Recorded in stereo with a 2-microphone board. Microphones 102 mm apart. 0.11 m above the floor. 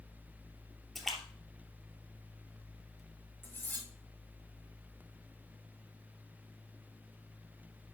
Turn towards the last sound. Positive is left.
turn(degrees=20)  # may be behind; listen again after turning